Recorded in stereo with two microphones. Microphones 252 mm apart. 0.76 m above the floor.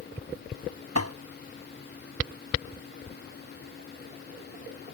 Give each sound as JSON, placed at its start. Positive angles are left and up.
{"t": 0.9, "sound": "tapping", "side_deg": -70}